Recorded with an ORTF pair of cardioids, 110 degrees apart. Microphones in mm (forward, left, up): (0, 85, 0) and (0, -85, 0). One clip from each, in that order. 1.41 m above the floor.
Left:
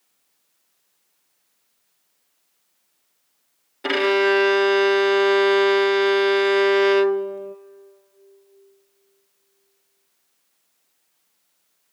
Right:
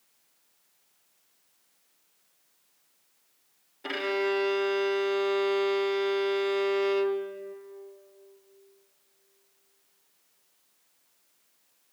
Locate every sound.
3.8 s a violin: 50° left, 0.5 m